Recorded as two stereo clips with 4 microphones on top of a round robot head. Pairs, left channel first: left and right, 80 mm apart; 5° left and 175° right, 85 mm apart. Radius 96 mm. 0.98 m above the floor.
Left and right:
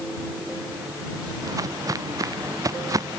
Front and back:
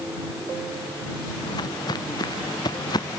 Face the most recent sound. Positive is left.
turn(degrees=-45)